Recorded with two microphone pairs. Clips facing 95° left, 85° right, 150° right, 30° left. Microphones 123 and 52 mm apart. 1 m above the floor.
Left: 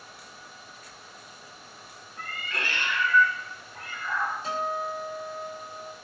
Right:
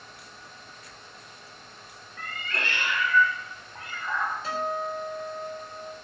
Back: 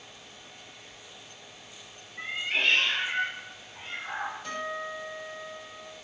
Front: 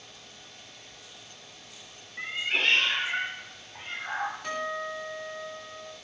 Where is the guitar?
30° left, 2 m.